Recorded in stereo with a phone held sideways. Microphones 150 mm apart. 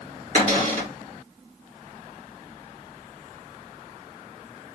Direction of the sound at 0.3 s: 50° right (ahead or behind).